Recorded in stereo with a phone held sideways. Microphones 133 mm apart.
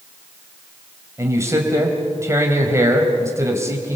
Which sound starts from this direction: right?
A man speaking, at 1.2 s.